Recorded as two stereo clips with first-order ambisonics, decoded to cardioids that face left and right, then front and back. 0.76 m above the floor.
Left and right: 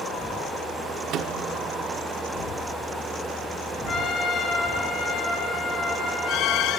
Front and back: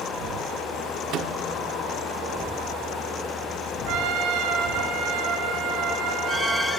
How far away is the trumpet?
About 3 m.